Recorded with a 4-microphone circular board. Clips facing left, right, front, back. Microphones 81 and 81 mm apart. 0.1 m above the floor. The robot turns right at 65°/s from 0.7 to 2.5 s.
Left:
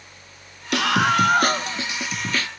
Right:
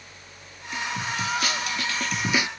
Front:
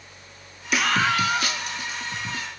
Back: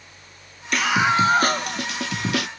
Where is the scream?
85° left; by 2.5 s 160° right.